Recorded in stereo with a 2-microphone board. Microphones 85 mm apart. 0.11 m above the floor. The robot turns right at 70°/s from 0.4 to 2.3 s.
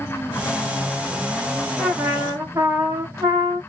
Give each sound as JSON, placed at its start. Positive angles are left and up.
{"t": 1.8, "sound": "a trumpet", "azimuth_deg": -170, "distance_m": 2.5}